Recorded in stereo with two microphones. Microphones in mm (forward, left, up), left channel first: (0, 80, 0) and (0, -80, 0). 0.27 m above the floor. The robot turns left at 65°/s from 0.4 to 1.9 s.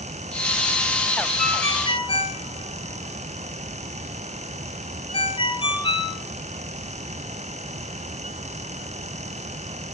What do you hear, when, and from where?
1.4 s a ringtone: centre (ahead or behind), 1.9 m; by 6.2 s 35° left (ahead or behind), 1.9 m